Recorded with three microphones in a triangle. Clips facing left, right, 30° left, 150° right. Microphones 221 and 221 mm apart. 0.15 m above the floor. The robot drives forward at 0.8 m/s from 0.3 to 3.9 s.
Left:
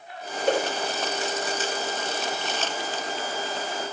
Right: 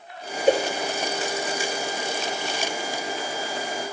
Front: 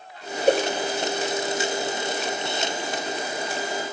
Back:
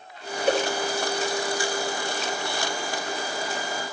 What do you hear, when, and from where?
0.5 s a whoosh: 20° right, 3.5 m; by 0.6 s 25° right, 3.5 m